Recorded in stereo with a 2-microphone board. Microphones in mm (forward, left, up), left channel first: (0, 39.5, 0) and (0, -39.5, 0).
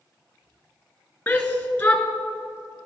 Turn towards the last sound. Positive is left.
turn(degrees=20)  # may be behind; listen again after turning